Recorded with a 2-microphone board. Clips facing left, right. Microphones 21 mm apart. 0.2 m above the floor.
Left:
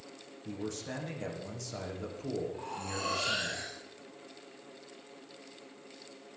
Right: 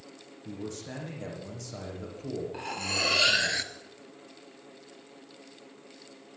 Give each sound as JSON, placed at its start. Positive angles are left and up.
{"t": 0.5, "sound": "a man speaking", "side_deg": 5, "distance_m": 9.0}
{"t": 2.5, "sound": "cutlery clinking", "side_deg": -60, "distance_m": 2.5}